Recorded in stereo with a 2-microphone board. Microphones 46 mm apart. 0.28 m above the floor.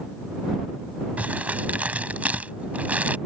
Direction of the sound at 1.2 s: 35° right (ahead or behind).